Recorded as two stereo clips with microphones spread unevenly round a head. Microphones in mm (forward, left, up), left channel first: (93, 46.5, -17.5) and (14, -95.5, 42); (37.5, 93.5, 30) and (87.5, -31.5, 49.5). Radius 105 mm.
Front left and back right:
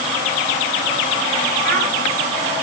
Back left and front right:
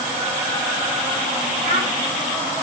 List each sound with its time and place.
1.6 s a child speaking: 115° right, 3 m